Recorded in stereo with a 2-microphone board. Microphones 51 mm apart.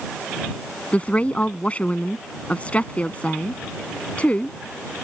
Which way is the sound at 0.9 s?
25° left (ahead or behind).